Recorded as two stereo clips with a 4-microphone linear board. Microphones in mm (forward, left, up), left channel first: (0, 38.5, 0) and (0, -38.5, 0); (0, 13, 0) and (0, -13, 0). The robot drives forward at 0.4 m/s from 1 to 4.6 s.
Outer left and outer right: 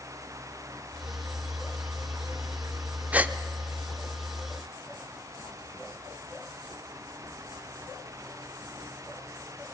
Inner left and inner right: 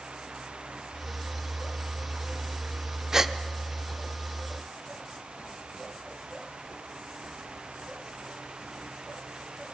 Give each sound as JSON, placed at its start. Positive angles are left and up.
{"t": 3.1, "sound": "a gasp", "side_deg": -20, "distance_m": 0.6}